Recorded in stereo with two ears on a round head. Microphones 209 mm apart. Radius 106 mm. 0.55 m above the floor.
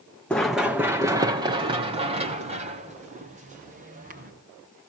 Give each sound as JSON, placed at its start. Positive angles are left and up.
{"t": 0.3, "sound": "running footsteps", "side_deg": 5, "distance_m": 1.5}